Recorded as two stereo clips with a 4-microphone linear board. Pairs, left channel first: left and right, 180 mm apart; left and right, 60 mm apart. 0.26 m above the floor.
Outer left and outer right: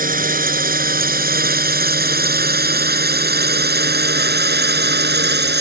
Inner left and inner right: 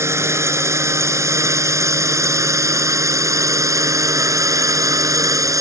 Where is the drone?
50° right (ahead or behind); by 5.6 s 70° right (ahead or behind).